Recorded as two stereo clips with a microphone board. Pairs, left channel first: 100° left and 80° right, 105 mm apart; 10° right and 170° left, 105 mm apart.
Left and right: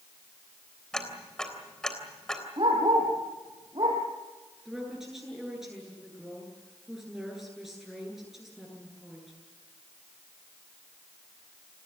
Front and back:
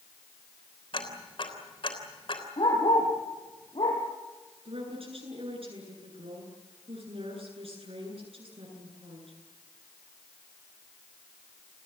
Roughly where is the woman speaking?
Behind.